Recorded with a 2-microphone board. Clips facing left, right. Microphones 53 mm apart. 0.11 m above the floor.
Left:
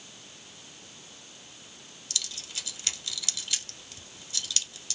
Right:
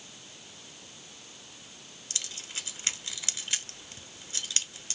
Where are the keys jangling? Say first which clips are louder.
Left 1 dB; 35° right (ahead or behind), 1.0 m.